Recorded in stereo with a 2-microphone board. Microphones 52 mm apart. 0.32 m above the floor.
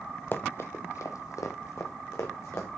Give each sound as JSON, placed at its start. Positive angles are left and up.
{"t": 0.3, "sound": "running footsteps", "side_deg": 40, "distance_m": 0.6}